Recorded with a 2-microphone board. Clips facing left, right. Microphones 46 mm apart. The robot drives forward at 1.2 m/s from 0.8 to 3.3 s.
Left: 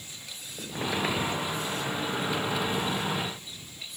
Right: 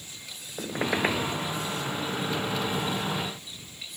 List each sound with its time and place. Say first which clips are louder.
0.6 s a squeak: right 3 dB; 35° right (ahead or behind), 1.0 m; by 1.3 s 25° right (ahead or behind), 1.4 m